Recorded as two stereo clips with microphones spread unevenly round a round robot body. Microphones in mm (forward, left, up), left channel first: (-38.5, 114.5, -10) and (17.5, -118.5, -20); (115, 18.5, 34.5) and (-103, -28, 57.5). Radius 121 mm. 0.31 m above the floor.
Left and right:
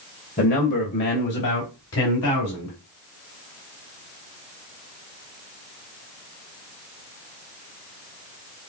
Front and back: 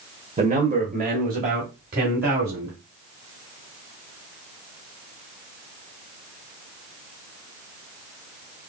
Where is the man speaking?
140° left, 1.1 m.